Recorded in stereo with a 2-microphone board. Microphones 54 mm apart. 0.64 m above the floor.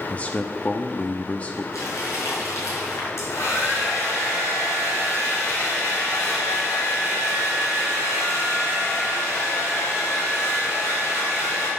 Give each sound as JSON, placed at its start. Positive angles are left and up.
{"t": 0.1, "sound": "a man speaking", "side_deg": 30, "distance_m": 0.8}
{"t": 1.7, "sound": "crumpling", "side_deg": 85, "distance_m": 5.0}
{"t": 3.2, "sound": "a hair dryer", "side_deg": 65, "distance_m": 4.0}